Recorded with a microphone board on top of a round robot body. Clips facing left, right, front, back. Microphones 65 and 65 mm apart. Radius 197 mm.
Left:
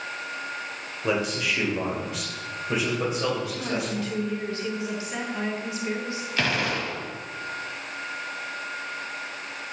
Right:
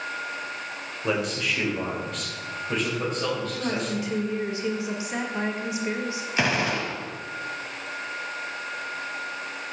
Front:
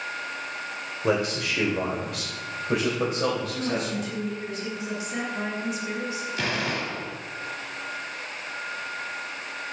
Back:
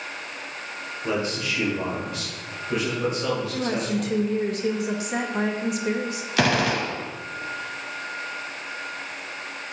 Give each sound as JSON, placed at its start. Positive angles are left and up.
{"t": 1.0, "sound": "a man speaking", "azimuth_deg": 0, "distance_m": 2.5}
{"t": 3.5, "sound": "a woman speaking", "azimuth_deg": -160, "distance_m": 1.9}
{"t": 6.4, "sound": "a gunshot", "azimuth_deg": -165, "distance_m": 1.1}